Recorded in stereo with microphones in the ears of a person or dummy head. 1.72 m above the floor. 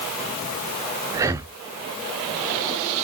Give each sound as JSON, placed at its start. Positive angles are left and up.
{"t": 1.1, "sound": "breathing", "side_deg": -15, "distance_m": 0.5}